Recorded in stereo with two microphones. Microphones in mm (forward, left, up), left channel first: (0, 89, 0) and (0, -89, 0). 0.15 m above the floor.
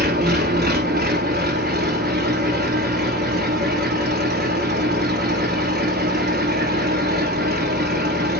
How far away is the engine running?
About 1.2 m.